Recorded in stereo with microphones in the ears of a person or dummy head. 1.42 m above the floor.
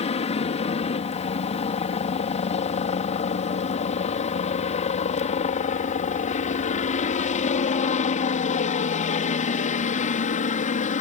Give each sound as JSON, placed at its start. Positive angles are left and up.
{"t": 0.0, "sound": "a helicopter", "side_deg": 30}